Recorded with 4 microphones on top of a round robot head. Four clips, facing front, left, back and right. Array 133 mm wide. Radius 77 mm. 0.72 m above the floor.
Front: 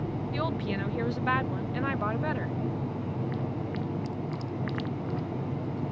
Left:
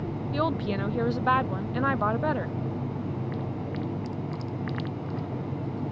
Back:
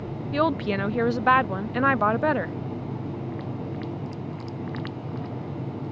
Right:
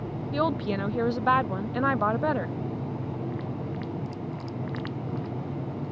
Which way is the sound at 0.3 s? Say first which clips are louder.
Right 1 dB, back 10 dB; 170° right.